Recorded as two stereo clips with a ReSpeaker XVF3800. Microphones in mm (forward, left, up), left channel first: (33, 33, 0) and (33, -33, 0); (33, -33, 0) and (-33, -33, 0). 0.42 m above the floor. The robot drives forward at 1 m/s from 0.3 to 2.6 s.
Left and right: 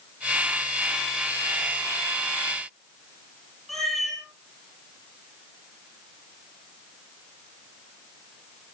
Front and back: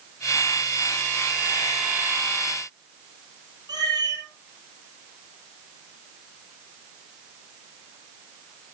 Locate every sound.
3.7 s a cat meowing: straight behind, 6.5 m